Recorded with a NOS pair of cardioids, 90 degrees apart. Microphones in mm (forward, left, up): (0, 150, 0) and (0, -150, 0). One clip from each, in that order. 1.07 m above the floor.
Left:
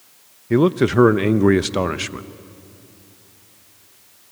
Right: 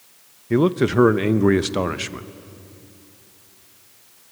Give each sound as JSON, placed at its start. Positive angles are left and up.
{"t": 0.5, "sound": "a man speaking", "azimuth_deg": 5, "distance_m": 0.7}